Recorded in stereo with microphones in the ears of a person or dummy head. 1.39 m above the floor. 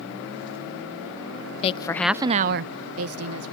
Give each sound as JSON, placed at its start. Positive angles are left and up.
{"t": 1.6, "sound": "a woman speaking", "side_deg": 35, "distance_m": 0.7}